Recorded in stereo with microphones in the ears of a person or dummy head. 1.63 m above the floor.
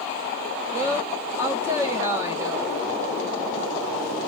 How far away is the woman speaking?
About 0.7 m.